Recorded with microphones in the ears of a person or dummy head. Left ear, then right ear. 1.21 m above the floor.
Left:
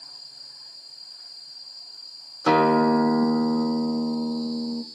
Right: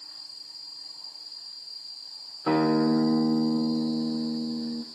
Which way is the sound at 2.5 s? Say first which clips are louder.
Left 5 dB; 80° left.